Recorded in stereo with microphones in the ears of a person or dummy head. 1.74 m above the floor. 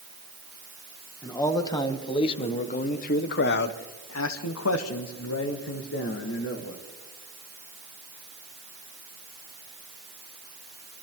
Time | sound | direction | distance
1.2 | a man speaking | 15° left (ahead or behind) | 2 m